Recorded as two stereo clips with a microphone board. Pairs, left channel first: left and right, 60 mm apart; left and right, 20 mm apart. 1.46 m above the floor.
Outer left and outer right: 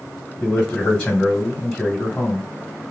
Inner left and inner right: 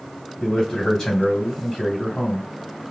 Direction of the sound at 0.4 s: 15° left (ahead or behind).